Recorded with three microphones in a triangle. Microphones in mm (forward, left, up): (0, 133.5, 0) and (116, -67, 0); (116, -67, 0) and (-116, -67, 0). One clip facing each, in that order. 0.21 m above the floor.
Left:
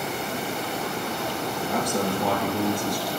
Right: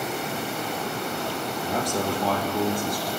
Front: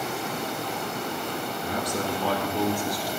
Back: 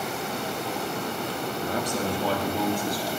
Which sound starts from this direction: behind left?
A man speaking, at 1.6 s.